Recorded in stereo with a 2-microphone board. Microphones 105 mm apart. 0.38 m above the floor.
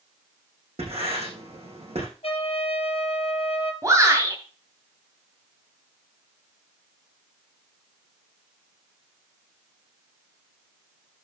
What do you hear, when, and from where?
0.8 s writing: 80° right, 6.5 m
2.2 s a trumpet: 70° left (ahead or behind), 1.8 m
3.8 s a shout: 30° right (ahead or behind), 2.5 m